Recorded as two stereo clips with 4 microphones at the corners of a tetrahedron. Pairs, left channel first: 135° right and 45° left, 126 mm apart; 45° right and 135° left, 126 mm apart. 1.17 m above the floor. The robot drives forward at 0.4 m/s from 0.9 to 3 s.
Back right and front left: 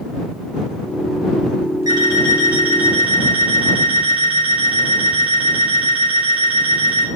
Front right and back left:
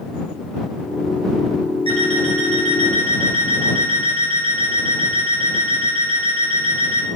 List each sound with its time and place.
1.9 s an alarm clock: 100° left, 1.2 m; by 7.1 s 120° left, 1.3 m